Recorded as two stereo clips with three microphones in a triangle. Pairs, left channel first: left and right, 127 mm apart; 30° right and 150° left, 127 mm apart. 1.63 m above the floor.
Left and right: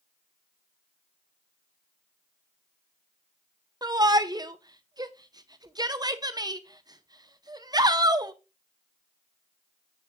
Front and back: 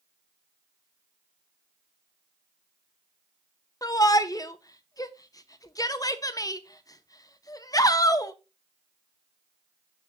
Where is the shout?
65° right, 0.6 m.